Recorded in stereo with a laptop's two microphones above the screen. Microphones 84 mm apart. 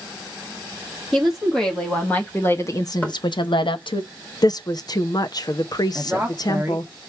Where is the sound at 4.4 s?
50° left (ahead or behind), 0.7 m.